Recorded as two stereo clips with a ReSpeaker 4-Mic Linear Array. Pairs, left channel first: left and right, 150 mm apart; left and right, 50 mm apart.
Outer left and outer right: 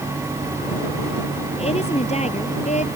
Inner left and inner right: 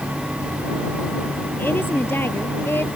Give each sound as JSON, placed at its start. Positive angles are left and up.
{"t": 1.6, "sound": "a woman speaking", "side_deg": 45}